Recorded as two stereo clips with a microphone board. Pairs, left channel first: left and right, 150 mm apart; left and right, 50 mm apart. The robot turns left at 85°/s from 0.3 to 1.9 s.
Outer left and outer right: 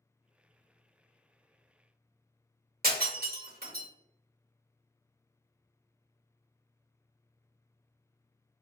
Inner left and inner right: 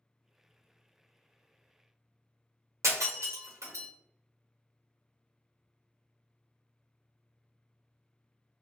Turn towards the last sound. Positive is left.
turn(degrees=-80)